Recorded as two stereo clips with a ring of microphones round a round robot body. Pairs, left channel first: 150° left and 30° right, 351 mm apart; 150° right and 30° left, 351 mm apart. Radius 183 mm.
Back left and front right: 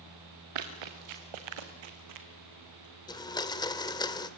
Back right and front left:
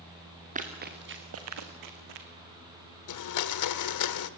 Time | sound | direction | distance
0.6 | running footsteps | 40° right | 3.5 m
3.1 | a blender | 135° right | 1.1 m